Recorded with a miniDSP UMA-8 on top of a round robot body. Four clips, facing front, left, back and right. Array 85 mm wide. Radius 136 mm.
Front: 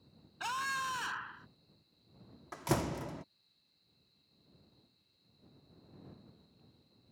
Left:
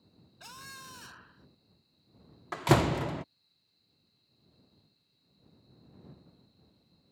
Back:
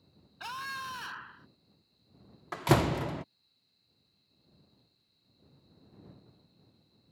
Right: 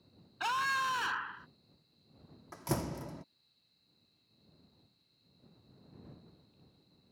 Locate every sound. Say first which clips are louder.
0.4 s a scream: right 18 dB, front 3 dB; 80° right
2.5 s a door slam: left 11 dB, back 8 dB; 125° left